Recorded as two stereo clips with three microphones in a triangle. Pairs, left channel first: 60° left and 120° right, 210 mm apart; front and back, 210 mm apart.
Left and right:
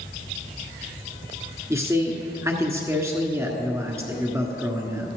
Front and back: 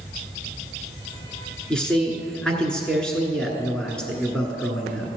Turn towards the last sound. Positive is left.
turn(degrees=-80)